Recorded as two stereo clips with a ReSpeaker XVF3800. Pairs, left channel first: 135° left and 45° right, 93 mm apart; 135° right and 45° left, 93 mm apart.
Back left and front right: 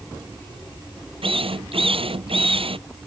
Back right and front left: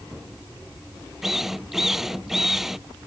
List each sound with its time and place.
1.2 s a drill: 40° right